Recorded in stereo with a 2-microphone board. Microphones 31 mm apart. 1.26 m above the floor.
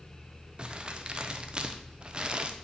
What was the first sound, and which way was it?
Crumpling, 35° right (ahead or behind).